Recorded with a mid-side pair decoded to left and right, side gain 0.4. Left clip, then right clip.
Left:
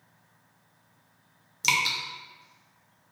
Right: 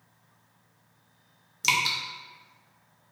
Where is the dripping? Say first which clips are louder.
Even; straight ahead, 0.5 m.